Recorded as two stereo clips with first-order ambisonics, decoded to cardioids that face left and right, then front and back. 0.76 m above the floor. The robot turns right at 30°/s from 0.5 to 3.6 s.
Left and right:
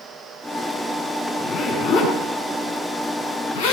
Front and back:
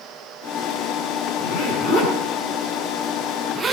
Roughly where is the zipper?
Ahead left.